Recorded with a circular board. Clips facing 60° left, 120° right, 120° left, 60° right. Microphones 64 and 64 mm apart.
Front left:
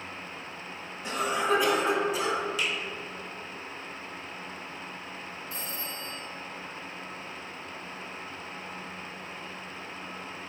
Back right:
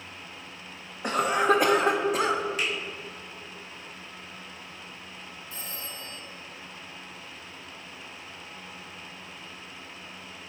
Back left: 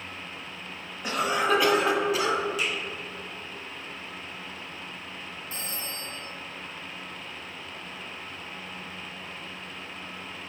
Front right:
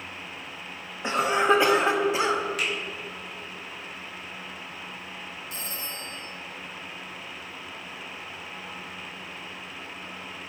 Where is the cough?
120° right, 0.9 m.